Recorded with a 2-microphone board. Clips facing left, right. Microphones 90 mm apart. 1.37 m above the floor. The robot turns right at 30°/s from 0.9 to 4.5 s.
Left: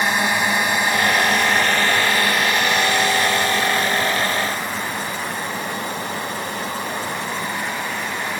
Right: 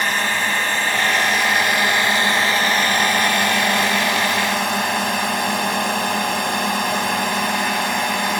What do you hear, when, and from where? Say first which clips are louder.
0.0 s a drone: left 2 dB; 165° left; by 8.4 s 85° right